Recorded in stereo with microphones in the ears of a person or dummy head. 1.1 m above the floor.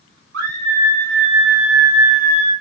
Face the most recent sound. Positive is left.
turn(degrees=-80)